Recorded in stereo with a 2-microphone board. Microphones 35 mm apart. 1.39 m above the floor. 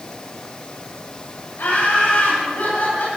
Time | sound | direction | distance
1.6 | laughter | 85° left | 7.5 m